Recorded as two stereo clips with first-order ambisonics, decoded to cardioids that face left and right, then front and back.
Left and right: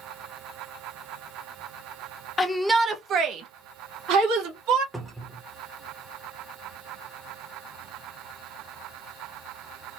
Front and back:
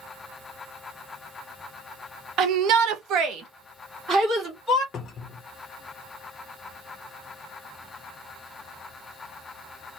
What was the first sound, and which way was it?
A shout, 155° left.